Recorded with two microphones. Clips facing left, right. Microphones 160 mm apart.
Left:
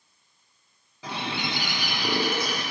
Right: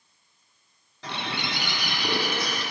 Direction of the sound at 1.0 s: 5° left (ahead or behind).